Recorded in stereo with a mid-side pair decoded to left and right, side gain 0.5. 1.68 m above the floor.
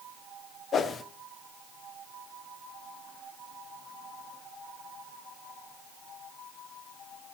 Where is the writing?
No writing in this recording.